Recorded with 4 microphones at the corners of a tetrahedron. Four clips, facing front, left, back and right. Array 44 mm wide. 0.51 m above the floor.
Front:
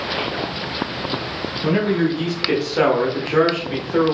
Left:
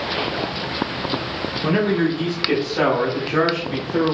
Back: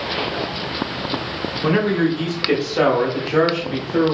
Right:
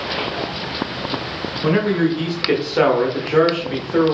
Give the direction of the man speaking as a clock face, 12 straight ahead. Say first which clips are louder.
Right 2 dB, back 1 dB; 5 o'clock.